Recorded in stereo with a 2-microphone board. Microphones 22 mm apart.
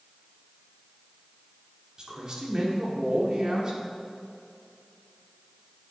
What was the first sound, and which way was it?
A man speaking, 40° right (ahead or behind).